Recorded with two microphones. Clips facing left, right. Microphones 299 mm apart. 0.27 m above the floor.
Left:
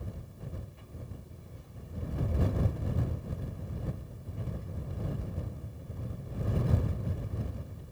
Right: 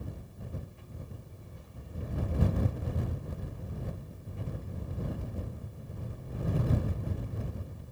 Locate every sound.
Only background noise.